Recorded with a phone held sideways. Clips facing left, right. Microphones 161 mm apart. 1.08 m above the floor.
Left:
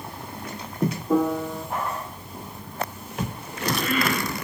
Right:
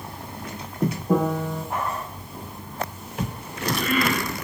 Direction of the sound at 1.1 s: 55° right (ahead or behind).